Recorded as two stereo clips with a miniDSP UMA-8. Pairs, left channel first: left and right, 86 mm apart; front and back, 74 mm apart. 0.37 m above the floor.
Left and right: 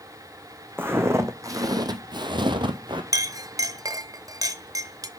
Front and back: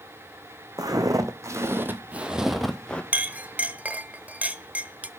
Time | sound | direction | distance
0.8 | footsteps | 150° right | 1.1 m
3.1 | a clink | 115° right | 0.5 m